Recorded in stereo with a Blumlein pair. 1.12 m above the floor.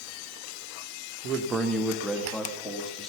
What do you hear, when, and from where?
1.2 s a man speaking: 30° right, 1.0 m; by 3.1 s 20° left, 2 m